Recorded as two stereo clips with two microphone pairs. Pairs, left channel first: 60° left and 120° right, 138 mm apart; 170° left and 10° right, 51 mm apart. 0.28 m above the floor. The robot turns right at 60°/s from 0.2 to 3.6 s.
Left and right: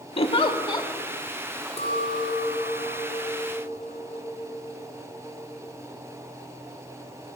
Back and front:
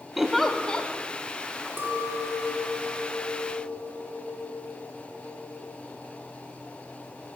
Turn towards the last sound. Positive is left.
turn(degrees=140)